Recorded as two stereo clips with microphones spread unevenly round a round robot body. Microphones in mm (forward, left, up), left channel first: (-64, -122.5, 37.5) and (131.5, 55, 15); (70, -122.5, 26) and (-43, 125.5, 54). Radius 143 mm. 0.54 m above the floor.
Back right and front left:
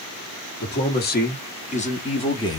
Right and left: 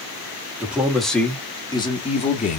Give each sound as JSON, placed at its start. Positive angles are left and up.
{"t": 0.6, "sound": "a man speaking", "azimuth_deg": -155, "distance_m": 1.3}